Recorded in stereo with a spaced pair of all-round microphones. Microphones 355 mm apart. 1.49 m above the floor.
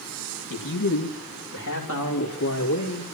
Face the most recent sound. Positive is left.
turn(degrees=50)  # may be behind; listen again after turning